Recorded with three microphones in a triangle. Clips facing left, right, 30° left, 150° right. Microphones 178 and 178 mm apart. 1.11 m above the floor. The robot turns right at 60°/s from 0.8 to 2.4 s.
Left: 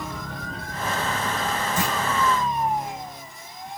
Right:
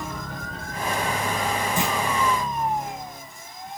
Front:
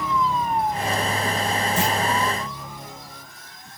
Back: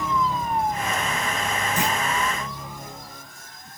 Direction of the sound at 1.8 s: 25° right.